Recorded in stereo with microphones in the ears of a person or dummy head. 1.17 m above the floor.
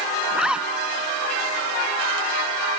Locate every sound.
0.3 s a zipper: 5° right (ahead or behind)